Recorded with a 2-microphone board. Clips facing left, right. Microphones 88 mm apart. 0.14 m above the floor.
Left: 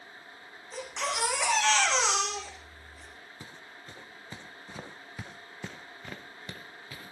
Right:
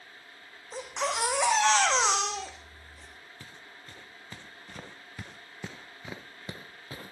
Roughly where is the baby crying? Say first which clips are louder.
Right 2 dB; right.